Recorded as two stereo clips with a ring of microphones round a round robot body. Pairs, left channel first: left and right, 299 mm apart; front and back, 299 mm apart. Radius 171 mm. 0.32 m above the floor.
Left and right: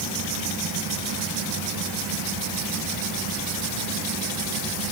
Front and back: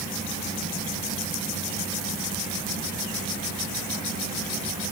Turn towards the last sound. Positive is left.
No sound to turn to.